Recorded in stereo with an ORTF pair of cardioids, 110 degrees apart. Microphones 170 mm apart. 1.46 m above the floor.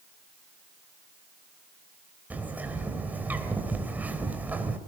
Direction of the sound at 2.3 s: 10° right.